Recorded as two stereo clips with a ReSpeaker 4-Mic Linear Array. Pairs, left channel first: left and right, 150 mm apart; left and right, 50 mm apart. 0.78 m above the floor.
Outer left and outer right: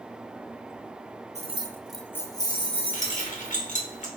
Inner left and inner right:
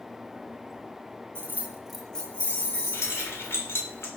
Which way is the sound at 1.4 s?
45° right (ahead or behind).